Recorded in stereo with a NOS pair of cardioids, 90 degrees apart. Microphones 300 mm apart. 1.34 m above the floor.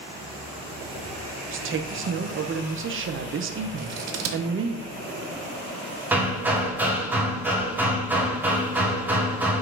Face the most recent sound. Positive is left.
turn(degrees=-5)